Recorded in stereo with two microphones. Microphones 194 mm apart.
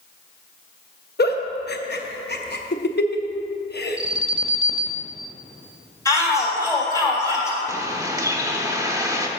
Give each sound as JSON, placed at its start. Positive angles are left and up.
{"t": 1.2, "sound": "a giggle", "side_deg": 60, "distance_m": 0.7}
{"t": 4.0, "sound": "an alarm", "side_deg": -30, "distance_m": 1.0}
{"t": 6.0, "sound": "a shout", "side_deg": 15, "distance_m": 2.5}
{"t": 7.7, "sound": "a bird", "side_deg": -15, "distance_m": 0.8}